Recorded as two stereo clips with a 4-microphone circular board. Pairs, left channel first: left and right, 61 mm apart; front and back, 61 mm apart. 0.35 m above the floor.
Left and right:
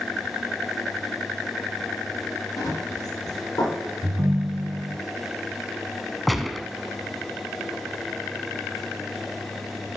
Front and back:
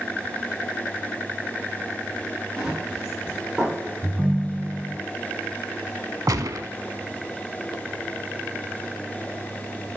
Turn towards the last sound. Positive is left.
turn(degrees=180)